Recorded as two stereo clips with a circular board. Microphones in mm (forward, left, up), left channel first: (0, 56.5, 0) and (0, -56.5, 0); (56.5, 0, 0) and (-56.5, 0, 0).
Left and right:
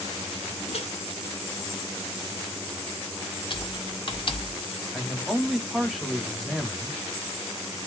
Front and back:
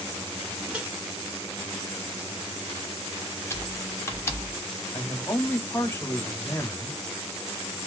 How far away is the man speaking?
About 1.2 m.